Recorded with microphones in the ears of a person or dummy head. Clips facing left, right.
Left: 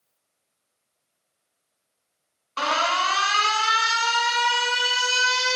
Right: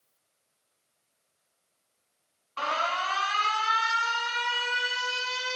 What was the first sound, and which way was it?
An alarm, 65° left (ahead or behind).